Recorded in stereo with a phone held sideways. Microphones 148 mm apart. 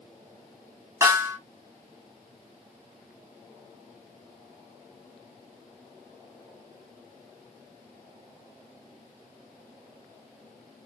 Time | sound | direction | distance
1.0 | a snare drum | 20° right (ahead or behind) | 0.8 m